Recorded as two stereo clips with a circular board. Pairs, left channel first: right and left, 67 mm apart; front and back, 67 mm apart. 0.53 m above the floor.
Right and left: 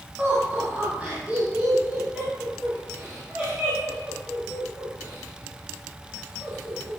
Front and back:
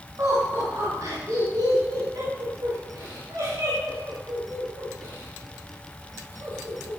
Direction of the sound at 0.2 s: 150° left.